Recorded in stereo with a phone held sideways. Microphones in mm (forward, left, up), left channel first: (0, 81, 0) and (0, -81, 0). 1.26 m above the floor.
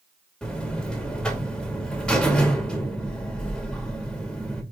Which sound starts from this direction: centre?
A buzzer, at 0.4 s.